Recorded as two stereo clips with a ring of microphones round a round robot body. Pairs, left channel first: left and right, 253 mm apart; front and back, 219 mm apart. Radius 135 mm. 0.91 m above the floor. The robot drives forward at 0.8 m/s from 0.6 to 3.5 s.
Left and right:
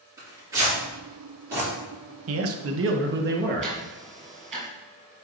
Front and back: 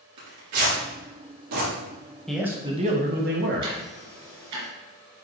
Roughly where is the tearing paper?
Behind.